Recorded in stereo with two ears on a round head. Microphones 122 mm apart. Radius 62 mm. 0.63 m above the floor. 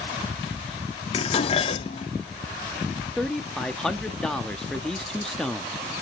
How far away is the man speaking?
About 0.9 m.